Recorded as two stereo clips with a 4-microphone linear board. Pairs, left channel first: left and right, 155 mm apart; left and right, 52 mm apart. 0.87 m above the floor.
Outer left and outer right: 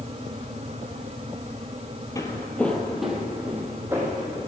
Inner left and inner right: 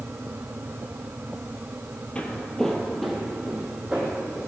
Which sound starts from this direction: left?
Footsteps, at 2.1 s.